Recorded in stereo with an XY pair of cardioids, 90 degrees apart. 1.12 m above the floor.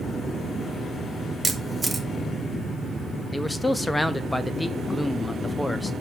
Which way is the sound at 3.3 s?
15° left.